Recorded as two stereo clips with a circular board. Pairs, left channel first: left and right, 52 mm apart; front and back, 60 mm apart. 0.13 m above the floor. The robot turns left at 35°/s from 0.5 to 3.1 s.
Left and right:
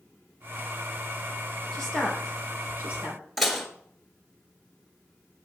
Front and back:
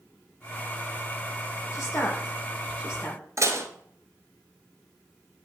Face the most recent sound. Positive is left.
turn(degrees=180)